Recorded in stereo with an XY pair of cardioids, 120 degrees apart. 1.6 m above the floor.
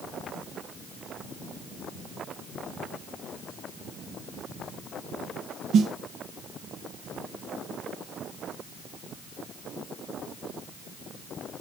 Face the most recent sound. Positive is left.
turn(degrees=-60)